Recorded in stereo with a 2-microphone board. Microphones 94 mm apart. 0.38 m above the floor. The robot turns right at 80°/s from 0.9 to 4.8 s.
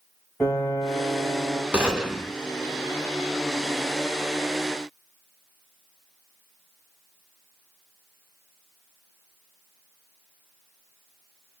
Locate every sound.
0.4 s a piano: 155° left, 1.8 m; by 1.6 s 145° right, 1.8 m
1.7 s a gunshot: 30° right, 1.7 m; by 2.3 s 15° left, 1.7 m